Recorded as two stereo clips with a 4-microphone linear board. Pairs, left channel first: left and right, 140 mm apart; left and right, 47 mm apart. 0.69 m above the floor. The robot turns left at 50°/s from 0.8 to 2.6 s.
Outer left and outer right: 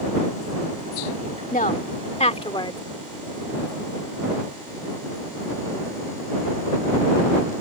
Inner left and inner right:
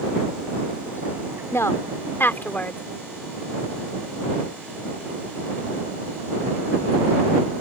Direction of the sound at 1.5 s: 70° left (ahead or behind).